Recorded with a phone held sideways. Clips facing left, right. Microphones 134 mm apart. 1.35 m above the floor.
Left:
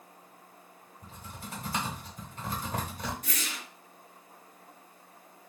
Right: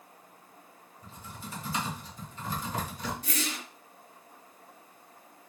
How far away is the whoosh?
About 0.8 m.